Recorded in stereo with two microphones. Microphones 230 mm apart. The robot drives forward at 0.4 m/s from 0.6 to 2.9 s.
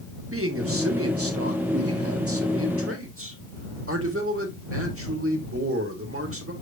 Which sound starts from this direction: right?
A man speaking, at 0.3 s.